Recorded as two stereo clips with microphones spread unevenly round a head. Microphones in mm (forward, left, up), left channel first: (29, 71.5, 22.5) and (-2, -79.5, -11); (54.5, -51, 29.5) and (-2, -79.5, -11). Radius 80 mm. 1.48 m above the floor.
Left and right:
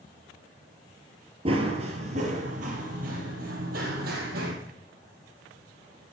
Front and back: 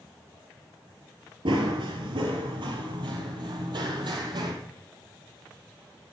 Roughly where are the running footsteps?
Behind right.